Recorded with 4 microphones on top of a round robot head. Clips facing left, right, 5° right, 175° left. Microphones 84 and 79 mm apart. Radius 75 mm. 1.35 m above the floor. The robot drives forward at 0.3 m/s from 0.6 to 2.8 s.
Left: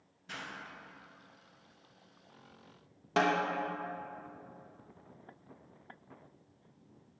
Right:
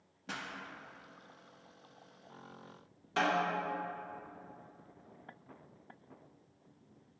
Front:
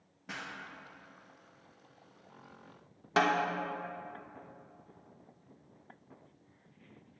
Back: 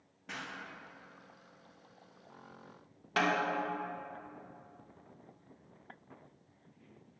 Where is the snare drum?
60° left, 0.9 m.